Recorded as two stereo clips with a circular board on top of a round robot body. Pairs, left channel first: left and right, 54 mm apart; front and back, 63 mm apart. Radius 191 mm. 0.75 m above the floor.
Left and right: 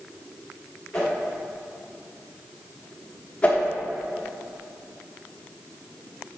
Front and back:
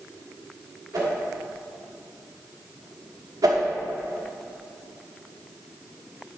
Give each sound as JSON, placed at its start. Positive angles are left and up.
{"t": 0.9, "sound": "a whoosh", "azimuth_deg": 165, "distance_m": 2.0}
{"t": 3.4, "sound": "a whoosh", "azimuth_deg": 160, "distance_m": 0.9}